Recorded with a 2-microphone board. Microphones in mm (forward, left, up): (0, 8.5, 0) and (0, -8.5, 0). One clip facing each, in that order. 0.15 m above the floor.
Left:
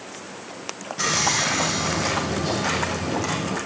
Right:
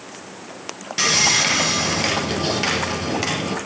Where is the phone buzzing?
No phone buzzing in this recording.